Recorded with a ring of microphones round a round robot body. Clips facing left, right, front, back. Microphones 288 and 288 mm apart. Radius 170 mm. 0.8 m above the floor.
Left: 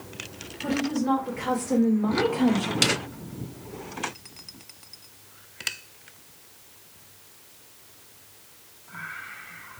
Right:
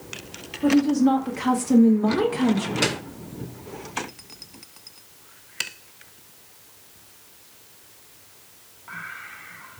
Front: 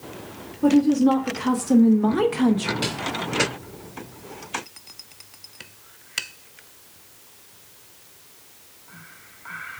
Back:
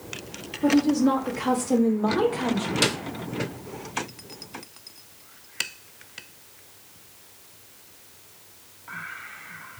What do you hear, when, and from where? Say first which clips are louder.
0.6 s a woman speaking: right 8 dB, front 3 dB; 65° right, 1.8 m; by 2.7 s 15° right, 0.8 m
2.8 s a snare drum: right 1 dB, back 3 dB; 140° left, 0.9 m